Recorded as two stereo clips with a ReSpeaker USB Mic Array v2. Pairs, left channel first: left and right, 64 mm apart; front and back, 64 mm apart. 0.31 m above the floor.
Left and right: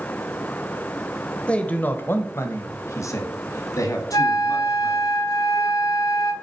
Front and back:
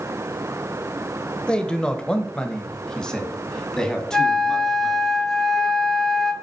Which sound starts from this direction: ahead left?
A man speaking, at 1.5 s.